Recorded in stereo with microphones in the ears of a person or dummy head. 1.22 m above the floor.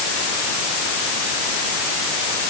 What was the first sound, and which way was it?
Only background noise.